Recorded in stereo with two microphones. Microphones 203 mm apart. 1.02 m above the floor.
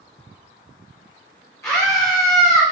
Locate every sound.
1.6 s a scream: 15° left (ahead or behind), 1.8 m